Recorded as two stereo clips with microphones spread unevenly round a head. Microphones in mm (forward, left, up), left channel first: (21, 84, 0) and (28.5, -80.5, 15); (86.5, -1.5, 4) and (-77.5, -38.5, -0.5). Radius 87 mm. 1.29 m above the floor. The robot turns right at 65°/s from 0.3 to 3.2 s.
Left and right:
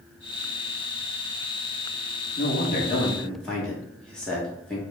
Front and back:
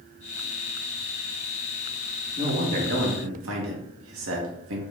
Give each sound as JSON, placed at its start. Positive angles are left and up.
{"t": 2.4, "sound": "a man speaking", "azimuth_deg": 125, "distance_m": 1.4}